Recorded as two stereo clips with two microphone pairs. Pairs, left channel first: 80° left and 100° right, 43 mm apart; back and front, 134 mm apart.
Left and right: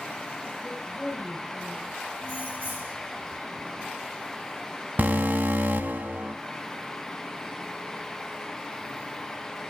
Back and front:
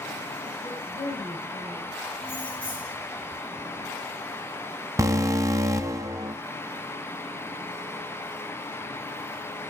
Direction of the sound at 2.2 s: 130° right.